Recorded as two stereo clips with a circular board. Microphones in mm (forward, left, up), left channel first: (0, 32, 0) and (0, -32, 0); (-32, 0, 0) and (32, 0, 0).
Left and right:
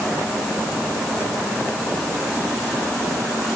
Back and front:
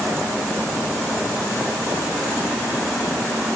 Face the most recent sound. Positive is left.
No sound to turn to.